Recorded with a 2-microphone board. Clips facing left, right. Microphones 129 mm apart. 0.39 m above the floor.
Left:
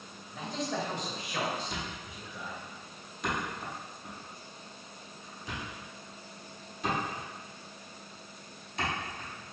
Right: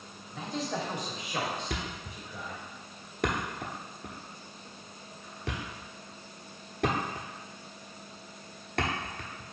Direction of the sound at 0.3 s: 5° left (ahead or behind).